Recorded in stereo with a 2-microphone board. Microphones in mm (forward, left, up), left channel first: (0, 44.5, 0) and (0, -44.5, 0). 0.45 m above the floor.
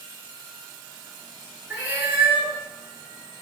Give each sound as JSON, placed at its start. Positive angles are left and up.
{"t": 1.7, "sound": "a cat meowing", "side_deg": -20, "distance_m": 2.0}